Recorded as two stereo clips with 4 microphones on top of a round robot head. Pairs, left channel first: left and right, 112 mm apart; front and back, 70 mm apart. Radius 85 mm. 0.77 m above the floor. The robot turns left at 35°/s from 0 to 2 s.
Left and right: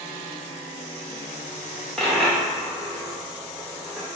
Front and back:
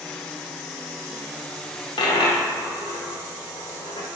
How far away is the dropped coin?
About 0.6 m.